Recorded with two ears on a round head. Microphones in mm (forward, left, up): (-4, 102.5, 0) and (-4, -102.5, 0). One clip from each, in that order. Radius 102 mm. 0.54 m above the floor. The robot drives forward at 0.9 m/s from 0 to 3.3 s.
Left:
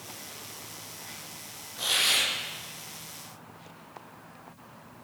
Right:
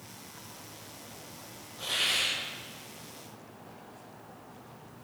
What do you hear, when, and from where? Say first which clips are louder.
1.8 s a hiss: left 4 dB; 35° left (ahead or behind), 7.5 m